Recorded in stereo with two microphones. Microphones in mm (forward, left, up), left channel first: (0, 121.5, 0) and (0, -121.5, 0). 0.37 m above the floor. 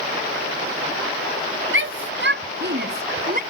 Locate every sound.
1.7 s a shout: 55° right (ahead or behind); by 3.4 s 35° right (ahead or behind)